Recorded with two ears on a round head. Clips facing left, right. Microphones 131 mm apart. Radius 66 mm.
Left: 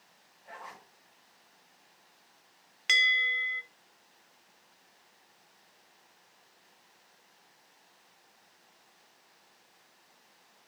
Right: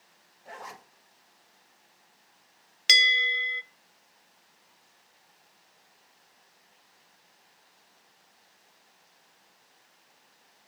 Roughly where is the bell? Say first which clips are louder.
Right 3 dB; right.